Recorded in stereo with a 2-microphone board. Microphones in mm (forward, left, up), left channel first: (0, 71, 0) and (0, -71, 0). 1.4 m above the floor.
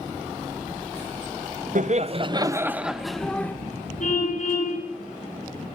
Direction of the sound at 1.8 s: 60° right (ahead or behind).